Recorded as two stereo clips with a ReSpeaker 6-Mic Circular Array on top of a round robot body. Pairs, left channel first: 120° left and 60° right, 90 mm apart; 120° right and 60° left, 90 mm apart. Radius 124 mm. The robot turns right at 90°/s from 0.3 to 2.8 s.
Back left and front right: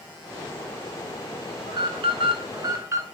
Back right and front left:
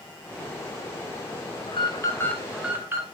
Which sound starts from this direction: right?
An alarm, at 1.7 s.